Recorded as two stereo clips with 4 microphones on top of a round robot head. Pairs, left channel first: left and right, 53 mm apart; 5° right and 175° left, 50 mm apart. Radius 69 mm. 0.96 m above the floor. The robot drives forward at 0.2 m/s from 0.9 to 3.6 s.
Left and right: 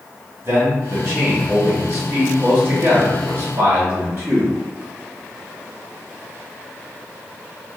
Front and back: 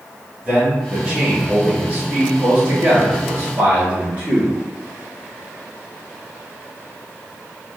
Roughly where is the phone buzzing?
I don't hear a phone buzzing.